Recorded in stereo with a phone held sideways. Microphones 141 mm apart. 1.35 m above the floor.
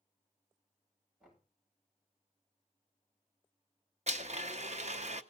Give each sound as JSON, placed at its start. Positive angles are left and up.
{"t": 1.2, "sound": "knocking", "side_deg": 0, "distance_m": 8.0}
{"t": 4.1, "sound": "a blender", "side_deg": -50, "distance_m": 0.8}